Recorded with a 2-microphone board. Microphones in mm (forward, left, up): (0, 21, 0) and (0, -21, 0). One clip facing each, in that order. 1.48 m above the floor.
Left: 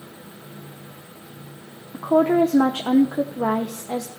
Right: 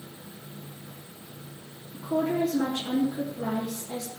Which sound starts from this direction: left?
A woman speaking, at 1.9 s.